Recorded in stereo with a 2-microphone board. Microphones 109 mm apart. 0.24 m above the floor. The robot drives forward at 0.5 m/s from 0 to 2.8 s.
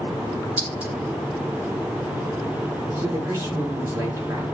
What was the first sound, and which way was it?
A clink, 15° right (ahead or behind).